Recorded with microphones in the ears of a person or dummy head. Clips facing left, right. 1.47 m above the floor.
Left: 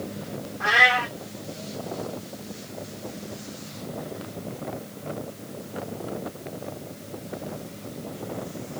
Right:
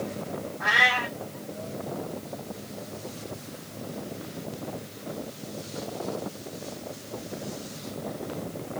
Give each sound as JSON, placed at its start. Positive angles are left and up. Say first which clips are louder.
{"t": 0.6, "sound": "a cat meowing", "louder": "left 6 dB", "side_deg": 35, "distance_m": 2.0}